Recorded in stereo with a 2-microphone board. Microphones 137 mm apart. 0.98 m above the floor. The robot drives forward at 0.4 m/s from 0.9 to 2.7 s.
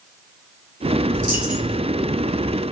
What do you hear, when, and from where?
1.1 s a dropped coin: 5° right (ahead or behind), 2.5 m